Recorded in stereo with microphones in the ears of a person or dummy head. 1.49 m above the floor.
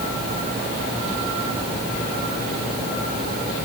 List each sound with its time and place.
Only background noise.